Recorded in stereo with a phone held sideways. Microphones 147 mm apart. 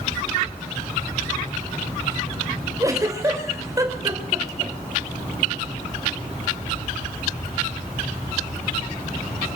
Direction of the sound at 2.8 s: 20° right (ahead or behind).